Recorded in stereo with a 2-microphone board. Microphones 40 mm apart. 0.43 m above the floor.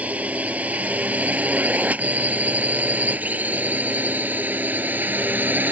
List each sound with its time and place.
0.0 s a drone: 40° right (ahead or behind); by 5.7 s 55° right (ahead or behind)